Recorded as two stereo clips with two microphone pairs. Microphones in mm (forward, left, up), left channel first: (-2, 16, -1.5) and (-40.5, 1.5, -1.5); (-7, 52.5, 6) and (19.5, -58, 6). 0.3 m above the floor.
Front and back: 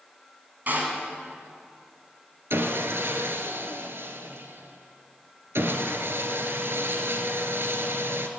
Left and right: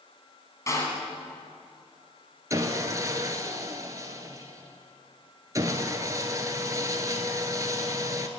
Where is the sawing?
135° right, 1.0 m.